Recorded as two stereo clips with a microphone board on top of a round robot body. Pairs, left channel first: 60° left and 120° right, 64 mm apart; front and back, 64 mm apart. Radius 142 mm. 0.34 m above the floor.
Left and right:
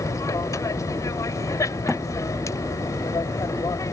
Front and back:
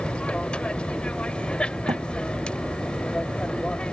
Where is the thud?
150° left.